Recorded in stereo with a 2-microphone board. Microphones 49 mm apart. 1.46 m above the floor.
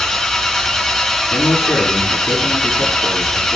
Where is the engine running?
5° left (ahead or behind), 5 m.